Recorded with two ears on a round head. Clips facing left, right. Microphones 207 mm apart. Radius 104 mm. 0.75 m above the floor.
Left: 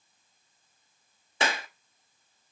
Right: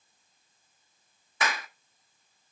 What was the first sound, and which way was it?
A clap, 25° left (ahead or behind).